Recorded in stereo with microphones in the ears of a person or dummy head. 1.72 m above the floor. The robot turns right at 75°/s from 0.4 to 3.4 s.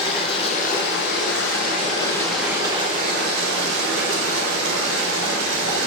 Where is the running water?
30° left, 0.8 m; by 5.9 s 105° right, 0.8 m.